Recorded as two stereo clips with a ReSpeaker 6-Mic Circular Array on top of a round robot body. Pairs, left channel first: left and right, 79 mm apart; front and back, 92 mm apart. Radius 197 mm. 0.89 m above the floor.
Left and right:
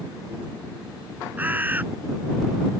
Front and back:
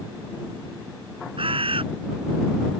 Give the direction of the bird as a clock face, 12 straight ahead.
5 o'clock.